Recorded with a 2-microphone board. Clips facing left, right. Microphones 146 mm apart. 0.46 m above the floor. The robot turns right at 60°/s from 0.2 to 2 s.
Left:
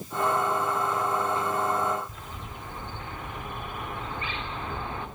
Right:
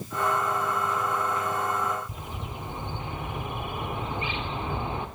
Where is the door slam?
I don't hear a door slam.